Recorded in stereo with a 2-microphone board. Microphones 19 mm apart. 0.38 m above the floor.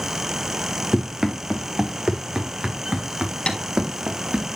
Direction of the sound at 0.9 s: 30° right (ahead or behind).